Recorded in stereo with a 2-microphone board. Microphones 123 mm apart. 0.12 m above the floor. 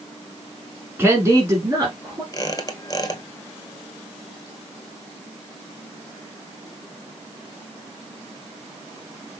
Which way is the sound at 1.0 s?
20° right (ahead or behind).